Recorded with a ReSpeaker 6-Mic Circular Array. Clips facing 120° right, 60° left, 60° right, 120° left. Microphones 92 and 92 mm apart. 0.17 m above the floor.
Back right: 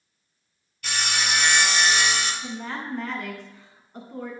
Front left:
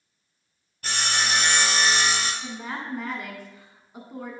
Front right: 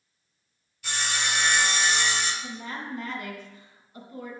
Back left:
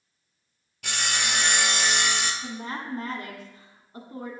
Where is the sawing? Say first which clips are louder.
Front left 1 dB, even; 110° left, 1.1 m.